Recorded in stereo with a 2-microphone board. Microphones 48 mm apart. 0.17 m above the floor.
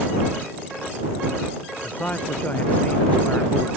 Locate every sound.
1.8 s a man speaking: 35° left (ahead or behind)